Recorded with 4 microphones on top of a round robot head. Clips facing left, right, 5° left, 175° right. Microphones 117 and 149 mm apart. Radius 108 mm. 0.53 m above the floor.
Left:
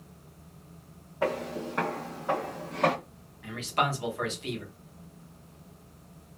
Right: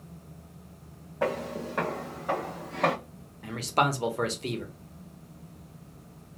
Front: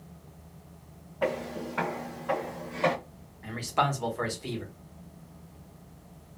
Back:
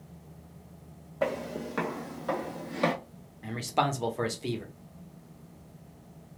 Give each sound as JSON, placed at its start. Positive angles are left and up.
{"t": 1.2, "sound": "footsteps", "azimuth_deg": -150, "distance_m": 1.7}
{"t": 3.4, "sound": "a man speaking", "azimuth_deg": -120, "distance_m": 0.9}